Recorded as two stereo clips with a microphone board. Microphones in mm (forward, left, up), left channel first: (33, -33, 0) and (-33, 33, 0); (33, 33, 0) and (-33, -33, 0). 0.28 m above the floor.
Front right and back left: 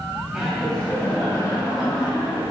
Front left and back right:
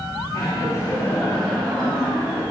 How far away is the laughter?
About 1.7 m.